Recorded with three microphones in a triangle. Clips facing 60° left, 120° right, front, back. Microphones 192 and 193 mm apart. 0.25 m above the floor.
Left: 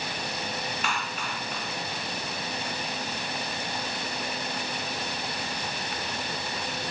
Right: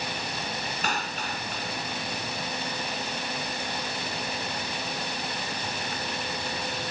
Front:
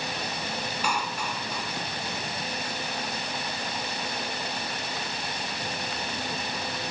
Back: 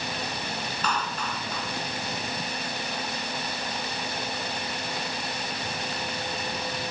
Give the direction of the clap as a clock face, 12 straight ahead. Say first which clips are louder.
Right 1 dB, back 1 dB; 3 o'clock.